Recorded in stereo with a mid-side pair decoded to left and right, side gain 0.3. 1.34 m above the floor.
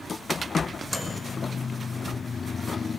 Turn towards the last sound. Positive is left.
turn(degrees=-10)